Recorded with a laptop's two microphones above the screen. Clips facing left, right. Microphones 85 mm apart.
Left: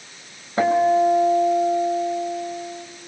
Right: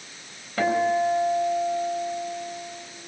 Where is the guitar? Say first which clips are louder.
Left 5 dB; 30° left (ahead or behind), 3.5 m.